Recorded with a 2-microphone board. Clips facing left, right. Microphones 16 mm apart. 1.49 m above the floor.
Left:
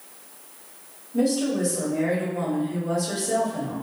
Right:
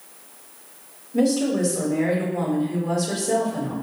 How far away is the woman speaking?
About 1.8 m.